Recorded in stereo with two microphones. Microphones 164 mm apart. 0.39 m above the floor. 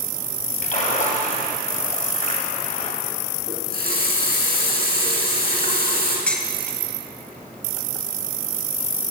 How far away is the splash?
About 3 m.